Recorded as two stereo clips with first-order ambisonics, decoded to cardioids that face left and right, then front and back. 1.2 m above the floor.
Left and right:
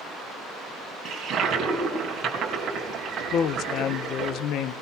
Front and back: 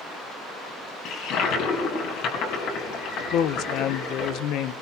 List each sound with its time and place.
1.1 s a toilet flushing: 30° right, 3 m
3.3 s a woman speaking: 40° left, 0.6 m